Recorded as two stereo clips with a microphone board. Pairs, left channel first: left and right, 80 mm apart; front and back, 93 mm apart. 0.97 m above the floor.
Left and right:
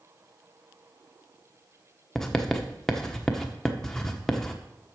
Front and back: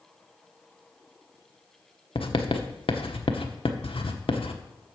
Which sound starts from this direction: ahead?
Writing, at 2.1 s.